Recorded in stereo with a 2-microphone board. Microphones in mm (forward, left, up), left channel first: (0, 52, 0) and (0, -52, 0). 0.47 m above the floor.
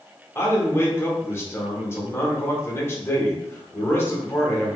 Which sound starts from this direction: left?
A man speaking, at 0.3 s.